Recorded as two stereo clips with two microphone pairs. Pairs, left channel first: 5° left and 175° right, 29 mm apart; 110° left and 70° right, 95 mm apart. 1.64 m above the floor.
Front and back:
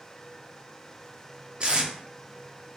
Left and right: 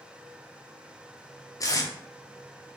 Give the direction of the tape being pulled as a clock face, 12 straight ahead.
7 o'clock.